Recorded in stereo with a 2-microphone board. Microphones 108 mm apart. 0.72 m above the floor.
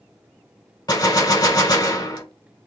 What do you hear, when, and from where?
0.9 s a gunshot: 40° left (ahead or behind), 1.6 m